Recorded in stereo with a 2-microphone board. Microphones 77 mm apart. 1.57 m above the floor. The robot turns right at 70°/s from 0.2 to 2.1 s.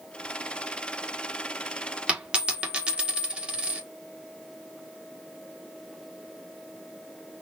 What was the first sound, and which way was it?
A dropped coin, 15° right (ahead or behind).